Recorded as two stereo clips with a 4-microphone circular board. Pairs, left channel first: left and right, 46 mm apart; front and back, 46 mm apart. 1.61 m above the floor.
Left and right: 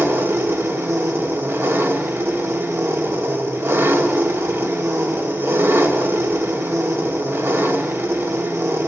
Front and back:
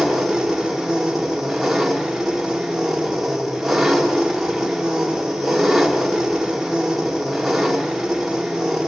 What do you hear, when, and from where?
0.0 s an engine running: 95° right, 2 m